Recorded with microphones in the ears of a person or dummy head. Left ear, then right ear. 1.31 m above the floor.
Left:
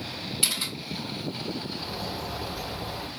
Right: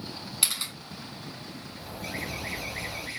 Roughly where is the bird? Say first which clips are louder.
Left 3 dB; centre.